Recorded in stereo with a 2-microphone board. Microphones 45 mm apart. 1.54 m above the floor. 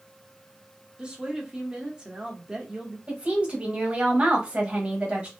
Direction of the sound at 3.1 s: 25° right (ahead or behind).